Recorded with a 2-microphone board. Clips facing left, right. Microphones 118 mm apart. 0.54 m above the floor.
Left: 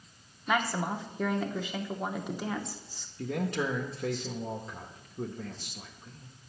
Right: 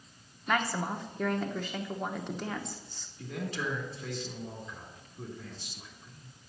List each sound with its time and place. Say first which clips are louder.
0.5 s a woman speaking: left 1 dB; 5° left (ahead or behind), 1.0 m
3.2 s a man speaking: left 5 dB; 55° left (ahead or behind), 1.1 m